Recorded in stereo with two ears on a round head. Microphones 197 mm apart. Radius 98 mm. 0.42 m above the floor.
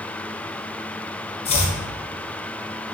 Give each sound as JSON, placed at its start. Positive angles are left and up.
{"t": 1.4, "sound": "chopping", "side_deg": 30, "distance_m": 0.5}